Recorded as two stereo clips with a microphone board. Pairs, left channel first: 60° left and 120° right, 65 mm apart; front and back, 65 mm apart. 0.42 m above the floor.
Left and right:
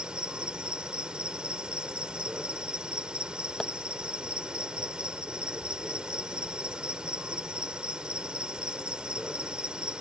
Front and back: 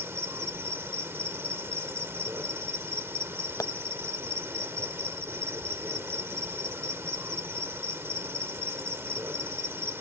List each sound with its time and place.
0.0 s an insect: 175° left
3.6 s tapping: 25° right